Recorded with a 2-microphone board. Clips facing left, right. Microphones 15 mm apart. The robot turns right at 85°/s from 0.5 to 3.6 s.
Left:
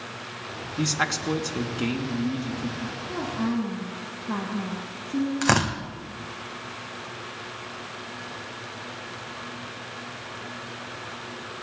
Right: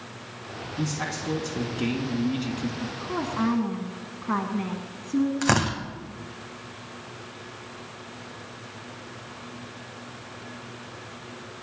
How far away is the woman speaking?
About 1.6 m.